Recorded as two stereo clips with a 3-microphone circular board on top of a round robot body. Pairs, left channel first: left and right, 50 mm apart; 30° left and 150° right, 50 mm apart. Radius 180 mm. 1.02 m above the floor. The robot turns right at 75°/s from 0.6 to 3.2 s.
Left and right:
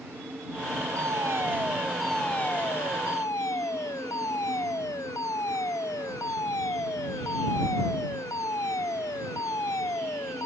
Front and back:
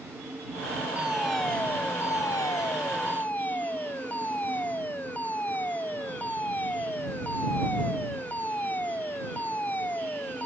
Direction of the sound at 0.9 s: 85° right.